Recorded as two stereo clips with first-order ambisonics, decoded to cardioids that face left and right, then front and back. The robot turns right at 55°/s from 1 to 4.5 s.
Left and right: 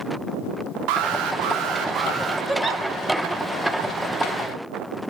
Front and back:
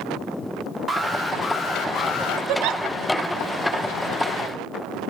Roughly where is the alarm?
Right.